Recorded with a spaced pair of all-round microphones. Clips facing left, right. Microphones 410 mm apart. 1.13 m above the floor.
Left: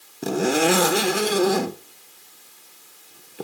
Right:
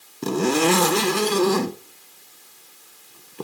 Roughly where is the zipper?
Centre.